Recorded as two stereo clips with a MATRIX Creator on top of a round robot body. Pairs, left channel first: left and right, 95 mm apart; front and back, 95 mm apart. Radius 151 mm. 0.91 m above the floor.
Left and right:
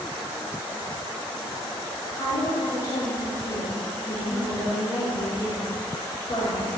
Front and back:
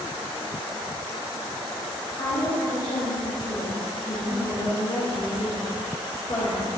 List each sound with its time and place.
2.2 s a woman speaking: 45° left, 4 m